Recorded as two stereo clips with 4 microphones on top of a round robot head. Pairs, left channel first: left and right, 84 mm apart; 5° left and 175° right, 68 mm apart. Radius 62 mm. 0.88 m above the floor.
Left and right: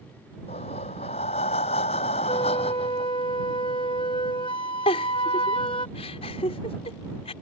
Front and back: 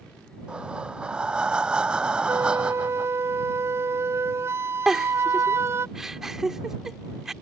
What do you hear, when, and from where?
0.5 s breathing: 105° left
2.3 s a flute: 130° left
4.9 s a giggle: 100° left